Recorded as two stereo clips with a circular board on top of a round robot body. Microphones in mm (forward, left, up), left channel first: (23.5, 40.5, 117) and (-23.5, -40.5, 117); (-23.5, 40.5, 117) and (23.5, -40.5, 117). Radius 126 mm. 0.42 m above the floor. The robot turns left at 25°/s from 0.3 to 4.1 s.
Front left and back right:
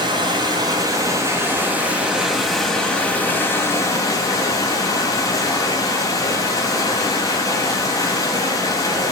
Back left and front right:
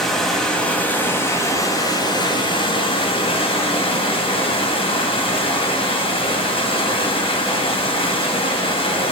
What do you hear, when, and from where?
0.0 s running water: 155° right, 2.5 m; by 9.1 s 110° left, 2.5 m